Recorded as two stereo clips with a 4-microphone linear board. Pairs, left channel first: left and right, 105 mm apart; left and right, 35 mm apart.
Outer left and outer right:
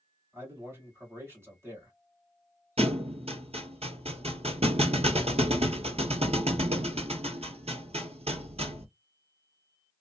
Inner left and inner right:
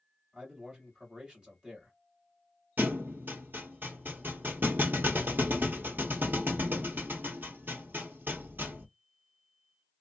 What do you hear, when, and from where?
0.3 s a man speaking: 25° right (ahead or behind), 1.8 m
2.8 s a thud: 80° right, 0.8 m